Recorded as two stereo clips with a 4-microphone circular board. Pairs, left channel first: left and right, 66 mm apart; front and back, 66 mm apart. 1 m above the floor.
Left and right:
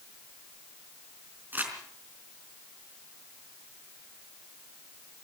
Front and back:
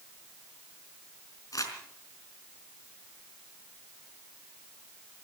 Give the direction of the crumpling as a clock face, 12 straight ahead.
1 o'clock.